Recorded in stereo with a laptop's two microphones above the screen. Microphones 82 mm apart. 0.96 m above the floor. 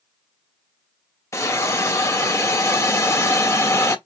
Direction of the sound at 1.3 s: 35° left (ahead or behind).